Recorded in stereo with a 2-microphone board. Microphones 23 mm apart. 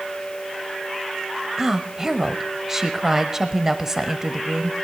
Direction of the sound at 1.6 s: 25° right (ahead or behind).